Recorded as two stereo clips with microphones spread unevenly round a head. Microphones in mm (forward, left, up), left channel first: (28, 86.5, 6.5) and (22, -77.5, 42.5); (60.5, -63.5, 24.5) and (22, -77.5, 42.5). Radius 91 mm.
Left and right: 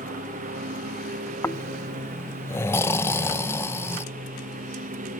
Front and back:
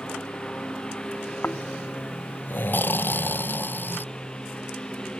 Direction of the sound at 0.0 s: 50° right.